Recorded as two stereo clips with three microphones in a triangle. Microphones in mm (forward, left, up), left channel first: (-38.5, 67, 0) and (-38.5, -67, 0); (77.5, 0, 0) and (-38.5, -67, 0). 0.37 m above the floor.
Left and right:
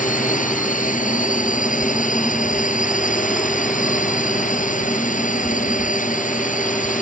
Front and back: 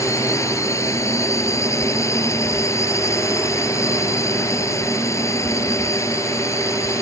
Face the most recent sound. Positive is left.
turn(degrees=100)